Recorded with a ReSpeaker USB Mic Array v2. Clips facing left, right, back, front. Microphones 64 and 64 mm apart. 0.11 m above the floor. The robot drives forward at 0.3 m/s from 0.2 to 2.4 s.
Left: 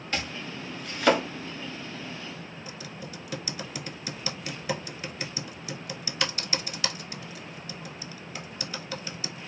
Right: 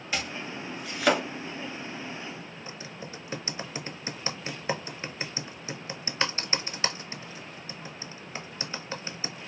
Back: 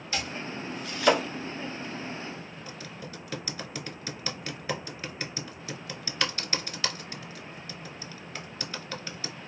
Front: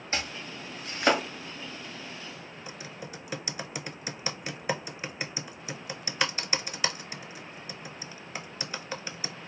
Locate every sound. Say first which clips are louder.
0.1 s chopping: even, back 1 dB; 10° right, 1.5 m; by 1.2 s 15° right, 1.4 m
2.7 s typing on a keyboard: even, even; 60° right, 0.5 m